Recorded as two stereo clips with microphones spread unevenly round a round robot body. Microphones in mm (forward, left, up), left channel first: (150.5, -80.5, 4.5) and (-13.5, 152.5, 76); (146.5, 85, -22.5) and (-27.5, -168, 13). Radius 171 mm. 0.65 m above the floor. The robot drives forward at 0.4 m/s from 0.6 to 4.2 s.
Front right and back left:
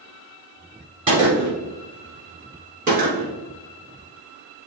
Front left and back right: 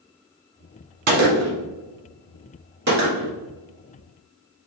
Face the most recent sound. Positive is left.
turn(degrees=-175)